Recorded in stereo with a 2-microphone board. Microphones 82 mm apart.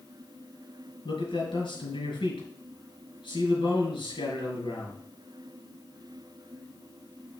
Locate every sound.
1.1 s a man speaking: 80° left, 4 m